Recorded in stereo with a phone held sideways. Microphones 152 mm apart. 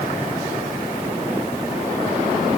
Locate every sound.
Only background noise.